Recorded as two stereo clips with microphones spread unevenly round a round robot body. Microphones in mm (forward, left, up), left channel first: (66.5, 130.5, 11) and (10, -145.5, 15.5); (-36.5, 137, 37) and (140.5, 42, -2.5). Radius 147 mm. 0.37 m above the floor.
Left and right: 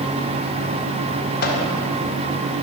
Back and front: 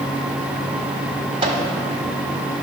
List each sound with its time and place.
1.4 s a microwave: 30° left, 1.5 m